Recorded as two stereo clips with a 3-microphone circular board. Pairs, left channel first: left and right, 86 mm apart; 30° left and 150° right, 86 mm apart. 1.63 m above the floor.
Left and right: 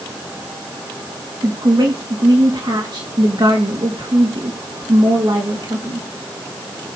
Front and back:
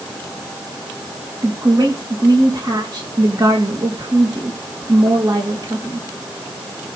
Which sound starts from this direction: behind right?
A woman speaking, at 1.4 s.